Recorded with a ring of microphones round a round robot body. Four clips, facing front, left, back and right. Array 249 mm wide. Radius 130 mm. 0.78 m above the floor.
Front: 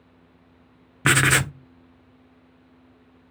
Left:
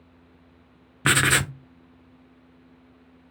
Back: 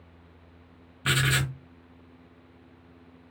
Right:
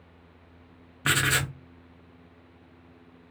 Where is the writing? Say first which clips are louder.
Left 4 dB, front 7 dB; 25° left, 0.5 m.